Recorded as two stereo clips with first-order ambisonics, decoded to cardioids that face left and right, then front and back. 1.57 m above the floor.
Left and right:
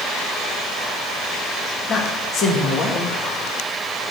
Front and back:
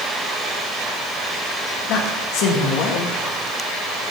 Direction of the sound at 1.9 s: 30° left.